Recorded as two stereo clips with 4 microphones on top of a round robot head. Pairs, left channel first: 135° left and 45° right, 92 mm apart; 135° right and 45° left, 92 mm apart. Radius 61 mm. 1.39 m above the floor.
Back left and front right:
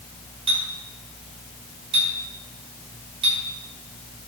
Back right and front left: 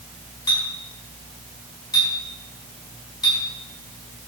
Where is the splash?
No splash in this recording.